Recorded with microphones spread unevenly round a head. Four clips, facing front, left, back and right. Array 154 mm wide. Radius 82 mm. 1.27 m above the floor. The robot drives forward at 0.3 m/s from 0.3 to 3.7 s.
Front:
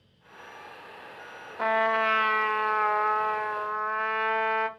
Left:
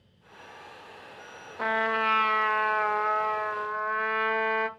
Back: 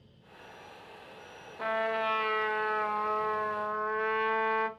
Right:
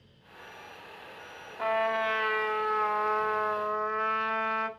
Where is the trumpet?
35° left, 1.0 m; by 4.7 s 135° left, 1.0 m.